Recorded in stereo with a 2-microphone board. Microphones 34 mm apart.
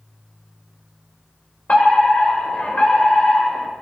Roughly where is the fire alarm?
Left.